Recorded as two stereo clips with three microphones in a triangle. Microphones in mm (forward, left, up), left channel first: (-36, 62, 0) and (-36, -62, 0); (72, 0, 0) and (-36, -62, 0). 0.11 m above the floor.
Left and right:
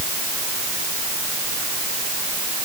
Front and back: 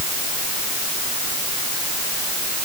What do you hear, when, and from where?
Only background noise.